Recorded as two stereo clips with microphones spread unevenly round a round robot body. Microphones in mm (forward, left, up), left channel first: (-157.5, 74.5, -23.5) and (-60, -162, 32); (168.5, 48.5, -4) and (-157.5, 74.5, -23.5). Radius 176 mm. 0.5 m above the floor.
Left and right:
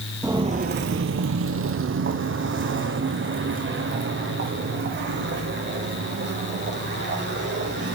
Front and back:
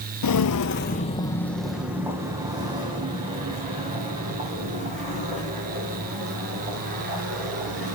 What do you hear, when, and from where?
0.2 s footsteps: 5° left, 0.7 m; by 8.0 s 115° right, 6.5 m